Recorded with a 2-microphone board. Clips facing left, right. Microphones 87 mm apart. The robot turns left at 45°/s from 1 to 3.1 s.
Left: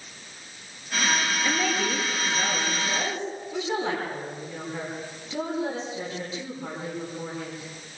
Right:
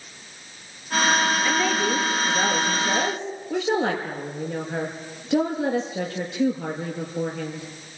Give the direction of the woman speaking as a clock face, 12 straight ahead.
12 o'clock.